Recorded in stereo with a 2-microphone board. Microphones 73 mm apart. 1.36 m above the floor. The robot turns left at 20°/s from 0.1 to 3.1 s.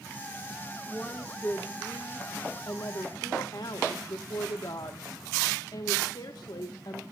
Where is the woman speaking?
165° left, 1.1 m; by 7.0 s 120° left, 1.1 m.